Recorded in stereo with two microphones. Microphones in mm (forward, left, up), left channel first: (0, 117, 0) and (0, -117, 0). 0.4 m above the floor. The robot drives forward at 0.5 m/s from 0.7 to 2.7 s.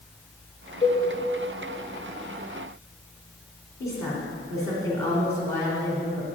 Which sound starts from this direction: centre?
A woman speaking, at 3.8 s.